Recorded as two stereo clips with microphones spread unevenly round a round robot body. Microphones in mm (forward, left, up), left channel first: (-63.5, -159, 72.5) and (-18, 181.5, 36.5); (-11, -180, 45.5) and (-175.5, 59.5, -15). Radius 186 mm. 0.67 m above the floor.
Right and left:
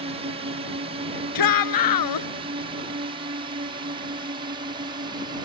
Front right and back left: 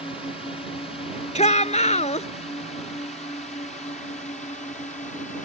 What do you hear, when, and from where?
0.0 s a drone: 25° left; by 5.5 s 15° left
1.4 s a shout: 120° right